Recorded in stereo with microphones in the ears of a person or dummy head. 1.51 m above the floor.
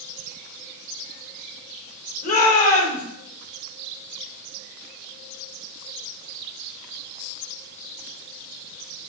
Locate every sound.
2.2 s a shout: 50° left (ahead or behind), 6 m